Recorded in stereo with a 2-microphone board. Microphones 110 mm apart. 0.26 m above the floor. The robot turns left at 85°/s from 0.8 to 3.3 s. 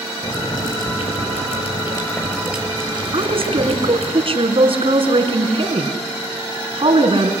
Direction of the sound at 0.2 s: 145° left.